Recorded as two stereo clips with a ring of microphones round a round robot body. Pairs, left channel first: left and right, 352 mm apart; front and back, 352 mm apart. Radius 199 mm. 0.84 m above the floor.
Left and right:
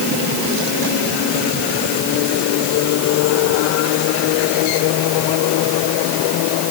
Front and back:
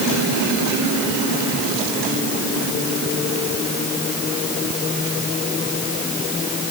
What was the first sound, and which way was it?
Only background noise.